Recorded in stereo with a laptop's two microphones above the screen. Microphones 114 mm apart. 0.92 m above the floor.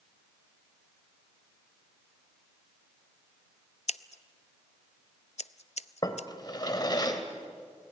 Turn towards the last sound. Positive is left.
turn(degrees=35)  # may be behind; listen again after turning